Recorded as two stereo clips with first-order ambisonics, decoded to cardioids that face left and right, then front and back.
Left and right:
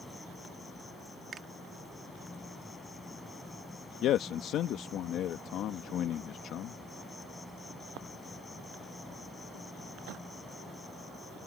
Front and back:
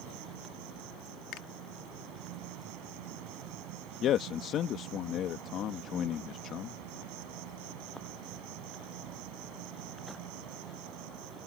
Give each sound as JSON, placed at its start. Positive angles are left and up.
{"t": 0.0, "sound": "an insect", "azimuth_deg": 170}
{"t": 1.3, "sound": "a finger snap", "azimuth_deg": -30}
{"t": 4.0, "sound": "a man speaking", "azimuth_deg": 50}